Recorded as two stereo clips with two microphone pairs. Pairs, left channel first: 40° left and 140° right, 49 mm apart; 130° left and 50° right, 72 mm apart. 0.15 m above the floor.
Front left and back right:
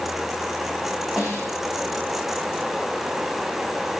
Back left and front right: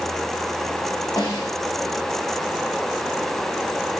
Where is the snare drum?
135° left, 9 m.